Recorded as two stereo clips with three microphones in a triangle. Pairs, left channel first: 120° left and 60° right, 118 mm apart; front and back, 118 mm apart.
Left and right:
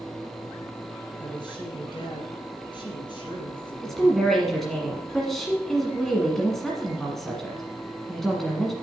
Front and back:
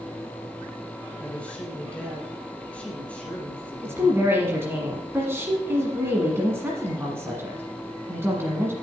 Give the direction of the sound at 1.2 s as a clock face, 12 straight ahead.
9 o'clock.